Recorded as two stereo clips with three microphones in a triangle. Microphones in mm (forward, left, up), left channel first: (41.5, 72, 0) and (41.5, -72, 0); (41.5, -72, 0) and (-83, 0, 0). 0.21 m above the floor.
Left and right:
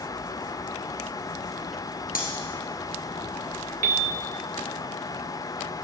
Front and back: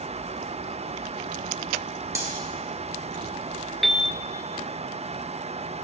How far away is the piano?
About 0.7 m.